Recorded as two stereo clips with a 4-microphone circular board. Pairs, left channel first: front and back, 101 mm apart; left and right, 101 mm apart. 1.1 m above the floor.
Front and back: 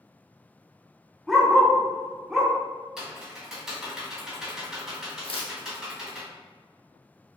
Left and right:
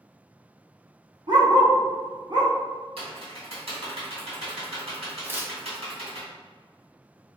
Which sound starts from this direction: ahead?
Tearing paper, at 5.2 s.